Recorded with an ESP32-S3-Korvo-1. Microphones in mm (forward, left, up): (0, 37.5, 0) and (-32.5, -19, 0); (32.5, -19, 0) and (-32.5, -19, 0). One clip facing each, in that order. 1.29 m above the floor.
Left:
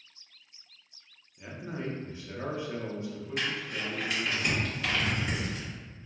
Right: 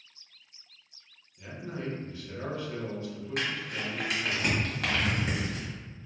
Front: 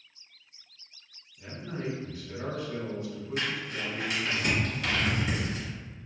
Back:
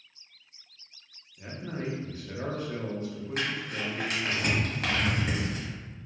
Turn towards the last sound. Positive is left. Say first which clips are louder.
# even, back 1 dB
turn(degrees=-145)